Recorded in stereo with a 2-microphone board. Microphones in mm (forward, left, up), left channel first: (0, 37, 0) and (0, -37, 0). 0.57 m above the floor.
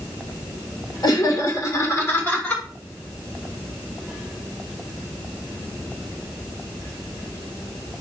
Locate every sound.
1.0 s laughter: 60° left (ahead or behind), 1.9 m; by 2.6 s 15° left (ahead or behind), 1.9 m